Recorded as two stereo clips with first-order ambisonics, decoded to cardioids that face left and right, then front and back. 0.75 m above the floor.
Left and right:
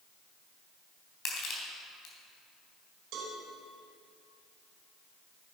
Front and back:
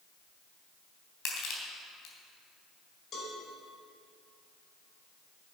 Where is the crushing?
40° left, 3 m.